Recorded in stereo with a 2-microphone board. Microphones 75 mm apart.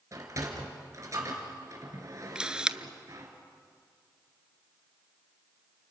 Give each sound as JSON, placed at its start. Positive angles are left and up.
{"t": 0.1, "sound": "a sliding door", "side_deg": -45, "distance_m": 3.5}
{"t": 2.4, "sound": "a camera shutter", "side_deg": -10, "distance_m": 0.6}